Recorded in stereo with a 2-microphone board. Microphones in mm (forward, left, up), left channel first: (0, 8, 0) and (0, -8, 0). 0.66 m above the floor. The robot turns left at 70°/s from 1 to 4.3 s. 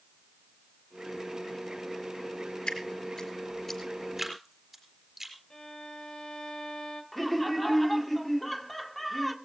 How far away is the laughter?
About 1.6 m.